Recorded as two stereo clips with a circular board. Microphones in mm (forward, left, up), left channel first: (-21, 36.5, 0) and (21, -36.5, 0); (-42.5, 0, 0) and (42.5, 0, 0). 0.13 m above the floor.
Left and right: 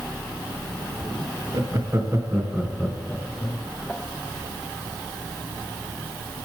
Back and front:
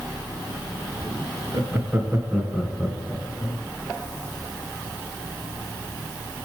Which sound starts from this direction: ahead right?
Laughter, at 1.5 s.